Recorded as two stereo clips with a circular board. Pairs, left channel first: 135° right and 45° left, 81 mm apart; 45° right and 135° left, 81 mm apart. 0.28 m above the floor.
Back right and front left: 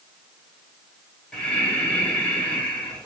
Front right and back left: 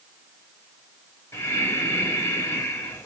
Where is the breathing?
70° right, 1.5 m.